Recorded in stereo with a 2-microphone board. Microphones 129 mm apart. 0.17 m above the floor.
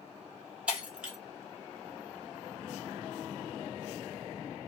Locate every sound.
0.7 s breaking glass: 5° right (ahead or behind), 1.2 m